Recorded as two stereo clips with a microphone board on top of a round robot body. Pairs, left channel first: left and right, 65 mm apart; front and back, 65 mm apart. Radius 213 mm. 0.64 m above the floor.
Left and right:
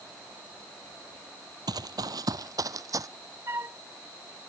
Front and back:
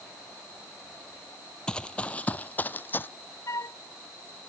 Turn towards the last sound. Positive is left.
turn(degrees=-40)